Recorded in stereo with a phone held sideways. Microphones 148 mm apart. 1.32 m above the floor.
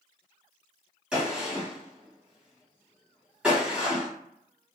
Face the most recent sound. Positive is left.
turn(degrees=-5)  # may be behind; listen again after turning